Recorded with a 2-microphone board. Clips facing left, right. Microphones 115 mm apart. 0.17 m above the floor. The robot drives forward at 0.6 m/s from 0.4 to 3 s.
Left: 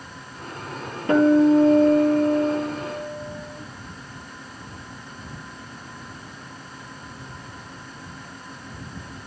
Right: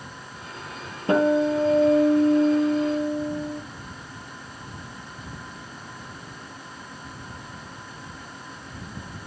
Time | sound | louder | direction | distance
1.1 | a guitar | left 5 dB | 30° right (ahead or behind) | 3.5 m